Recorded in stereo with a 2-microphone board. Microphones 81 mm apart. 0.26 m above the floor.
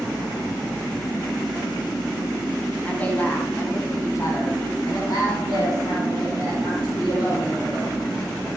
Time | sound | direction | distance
2.9 | a woman speaking | 15° left (ahead or behind) | 2.5 m